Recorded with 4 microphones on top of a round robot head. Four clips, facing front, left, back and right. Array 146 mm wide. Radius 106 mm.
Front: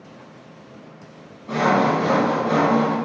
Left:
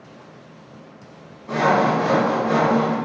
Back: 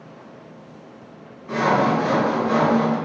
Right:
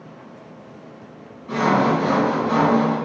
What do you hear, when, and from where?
1.5 s sawing: 55° left, 1.7 m